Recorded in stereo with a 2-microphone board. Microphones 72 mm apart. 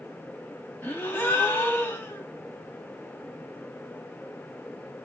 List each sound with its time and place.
0.8 s a gasp: 30° left (ahead or behind), 1.1 m